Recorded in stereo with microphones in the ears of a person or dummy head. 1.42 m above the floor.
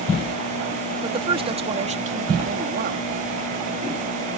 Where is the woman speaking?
30° right (ahead or behind); by 3.0 s 55° right (ahead or behind).